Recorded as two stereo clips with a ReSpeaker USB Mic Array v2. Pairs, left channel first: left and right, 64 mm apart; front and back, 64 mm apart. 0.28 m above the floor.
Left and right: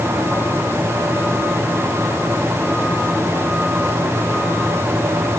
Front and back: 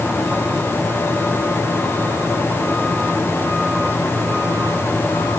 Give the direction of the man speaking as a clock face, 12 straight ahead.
No man speaking in this recording.